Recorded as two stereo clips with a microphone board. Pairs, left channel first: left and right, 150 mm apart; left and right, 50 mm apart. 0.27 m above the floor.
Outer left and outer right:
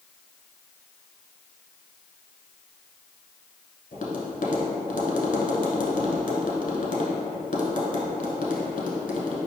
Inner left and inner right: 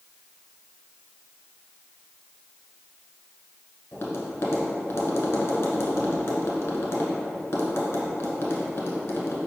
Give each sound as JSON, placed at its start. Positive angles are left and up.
{"t": 3.9, "sound": "tapping", "side_deg": 65, "distance_m": 1.0}